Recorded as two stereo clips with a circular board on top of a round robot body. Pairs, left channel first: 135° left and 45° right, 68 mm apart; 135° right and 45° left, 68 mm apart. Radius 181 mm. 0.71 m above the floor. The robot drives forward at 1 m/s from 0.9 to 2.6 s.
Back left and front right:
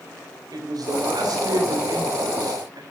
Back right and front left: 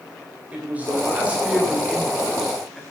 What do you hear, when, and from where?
0.5 s a man speaking: 25° right, 3 m; by 2.8 s 50° right, 1.7 m